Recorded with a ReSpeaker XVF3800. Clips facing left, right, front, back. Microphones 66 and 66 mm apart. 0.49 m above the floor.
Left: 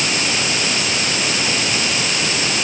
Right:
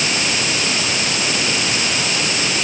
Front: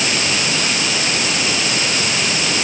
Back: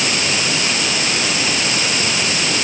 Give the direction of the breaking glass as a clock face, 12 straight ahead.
No breaking glass in this recording.